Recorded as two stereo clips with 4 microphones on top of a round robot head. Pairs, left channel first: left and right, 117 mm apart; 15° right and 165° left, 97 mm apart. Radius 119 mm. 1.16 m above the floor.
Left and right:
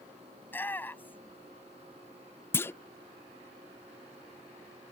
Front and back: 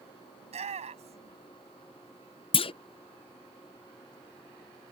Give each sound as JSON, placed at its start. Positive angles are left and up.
{"t": 0.4, "sound": "a shout", "azimuth_deg": 165}
{"t": 2.5, "sound": "a clunk", "azimuth_deg": 20}